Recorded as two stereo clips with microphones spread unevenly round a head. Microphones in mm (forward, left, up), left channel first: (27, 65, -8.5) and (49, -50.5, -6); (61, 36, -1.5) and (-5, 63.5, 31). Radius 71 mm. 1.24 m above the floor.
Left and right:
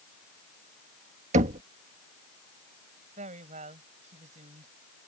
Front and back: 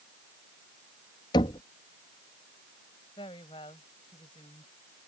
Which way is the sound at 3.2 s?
55° right.